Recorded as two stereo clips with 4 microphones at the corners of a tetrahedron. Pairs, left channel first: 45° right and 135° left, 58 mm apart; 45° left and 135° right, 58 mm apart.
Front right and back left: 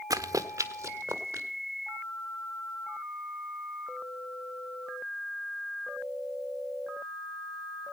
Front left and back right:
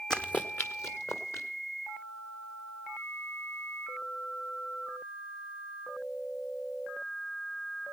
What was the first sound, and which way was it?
Running footsteps, 125° left.